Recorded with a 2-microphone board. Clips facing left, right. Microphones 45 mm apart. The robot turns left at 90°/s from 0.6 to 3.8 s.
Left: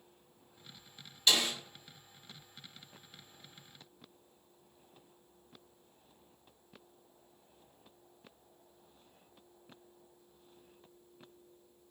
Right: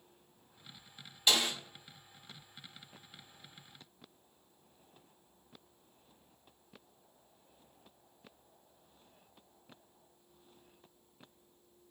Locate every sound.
1.3 s a snare drum: 15° right (ahead or behind), 1.9 m; by 1.5 s 35° right (ahead or behind), 1.9 m